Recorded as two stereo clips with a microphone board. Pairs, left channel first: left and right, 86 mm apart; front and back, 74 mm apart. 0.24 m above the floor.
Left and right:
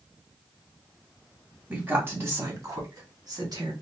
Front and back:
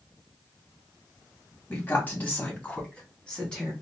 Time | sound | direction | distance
1.7 | a woman speaking | 35° right | 1.6 m